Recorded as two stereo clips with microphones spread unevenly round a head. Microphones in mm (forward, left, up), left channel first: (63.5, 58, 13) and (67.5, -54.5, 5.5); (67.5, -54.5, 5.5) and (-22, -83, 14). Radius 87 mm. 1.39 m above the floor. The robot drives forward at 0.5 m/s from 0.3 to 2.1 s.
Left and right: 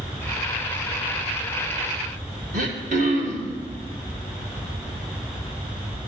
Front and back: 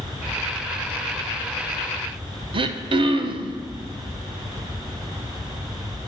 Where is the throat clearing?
135° right, 0.7 m.